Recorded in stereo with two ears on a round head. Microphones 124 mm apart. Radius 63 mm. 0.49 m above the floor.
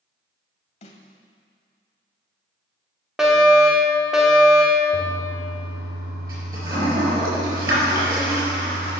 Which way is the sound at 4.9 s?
30° right (ahead or behind).